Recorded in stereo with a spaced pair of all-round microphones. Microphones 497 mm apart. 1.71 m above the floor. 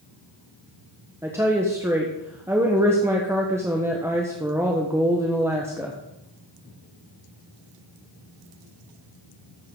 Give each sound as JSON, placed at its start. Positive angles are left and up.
{"t": 1.2, "sound": "a woman speaking", "side_deg": -5, "distance_m": 1.1}